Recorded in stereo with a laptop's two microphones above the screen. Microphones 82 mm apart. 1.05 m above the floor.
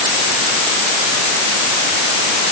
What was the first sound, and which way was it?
Only background noise.